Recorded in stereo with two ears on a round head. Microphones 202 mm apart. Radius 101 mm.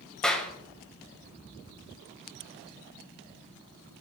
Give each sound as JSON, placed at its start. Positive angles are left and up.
{"t": 0.2, "sound": "a clap", "side_deg": 5, "distance_m": 2.0}